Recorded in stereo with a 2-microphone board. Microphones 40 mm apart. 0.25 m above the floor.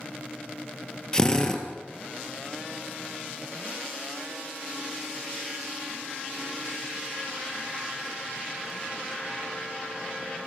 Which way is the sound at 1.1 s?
15° left (ahead or behind).